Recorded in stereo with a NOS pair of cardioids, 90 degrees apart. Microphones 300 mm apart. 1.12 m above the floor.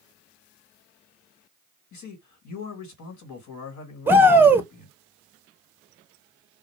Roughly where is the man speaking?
Ahead left.